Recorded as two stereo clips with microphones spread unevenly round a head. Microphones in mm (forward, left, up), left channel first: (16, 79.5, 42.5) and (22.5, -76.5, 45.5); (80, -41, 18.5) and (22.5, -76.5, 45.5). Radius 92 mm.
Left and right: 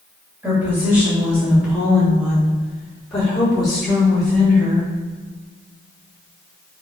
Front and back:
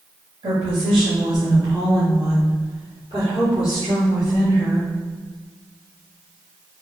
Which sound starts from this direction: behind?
A woman speaking, at 0.4 s.